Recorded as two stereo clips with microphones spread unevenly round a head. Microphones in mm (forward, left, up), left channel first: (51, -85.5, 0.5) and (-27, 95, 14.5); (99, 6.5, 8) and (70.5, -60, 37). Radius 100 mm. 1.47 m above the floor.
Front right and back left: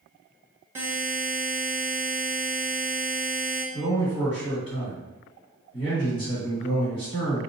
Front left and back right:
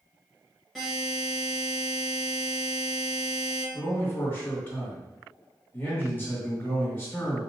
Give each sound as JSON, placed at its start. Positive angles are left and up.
{"t": 0.8, "sound": "a buzzer", "azimuth_deg": -175, "distance_m": 0.7}
{"t": 3.7, "sound": "a man speaking", "azimuth_deg": 0, "distance_m": 1.9}